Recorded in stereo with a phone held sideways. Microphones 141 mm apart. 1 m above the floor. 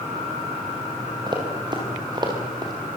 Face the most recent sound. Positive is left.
turn(degrees=-30)  # may be behind; listen again after turning